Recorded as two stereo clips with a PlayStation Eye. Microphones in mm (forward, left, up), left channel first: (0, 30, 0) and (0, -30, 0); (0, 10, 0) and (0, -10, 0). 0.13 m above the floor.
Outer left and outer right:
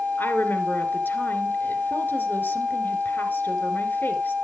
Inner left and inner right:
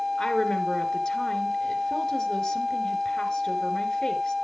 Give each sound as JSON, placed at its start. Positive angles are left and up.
{"t": 0.2, "sound": "a woman speaking", "side_deg": 35, "distance_m": 2.5}